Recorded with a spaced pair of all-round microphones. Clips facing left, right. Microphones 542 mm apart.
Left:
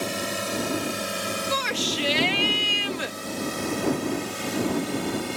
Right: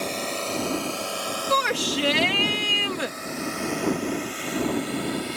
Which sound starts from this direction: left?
A drone, at 0.0 s.